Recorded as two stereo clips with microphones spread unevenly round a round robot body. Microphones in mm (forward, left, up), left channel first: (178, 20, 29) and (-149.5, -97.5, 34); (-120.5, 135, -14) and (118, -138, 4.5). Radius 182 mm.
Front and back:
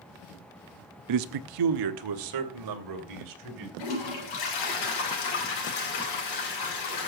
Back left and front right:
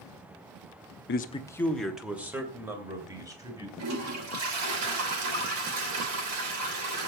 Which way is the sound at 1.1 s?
Straight behind.